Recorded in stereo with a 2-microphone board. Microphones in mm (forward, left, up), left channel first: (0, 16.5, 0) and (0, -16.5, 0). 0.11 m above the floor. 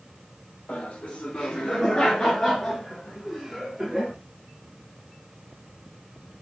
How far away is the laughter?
About 1.9 m.